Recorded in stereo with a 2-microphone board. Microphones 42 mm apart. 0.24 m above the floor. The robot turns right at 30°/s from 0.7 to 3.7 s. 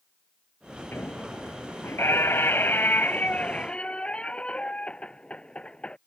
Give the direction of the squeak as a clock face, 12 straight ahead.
10 o'clock.